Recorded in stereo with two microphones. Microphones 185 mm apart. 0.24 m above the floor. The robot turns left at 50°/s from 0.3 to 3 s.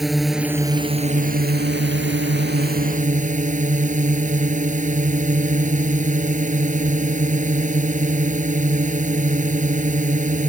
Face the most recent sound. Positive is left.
turn(degrees=-135)